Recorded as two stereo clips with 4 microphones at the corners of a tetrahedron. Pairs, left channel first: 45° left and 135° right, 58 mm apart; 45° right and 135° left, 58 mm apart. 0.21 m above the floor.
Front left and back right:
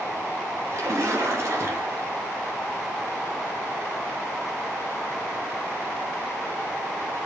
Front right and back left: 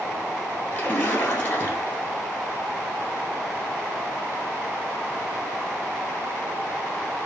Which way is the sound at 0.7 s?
95° right.